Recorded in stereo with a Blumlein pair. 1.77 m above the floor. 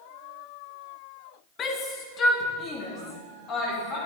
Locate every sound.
1.6 s a shout: 25° left, 2 m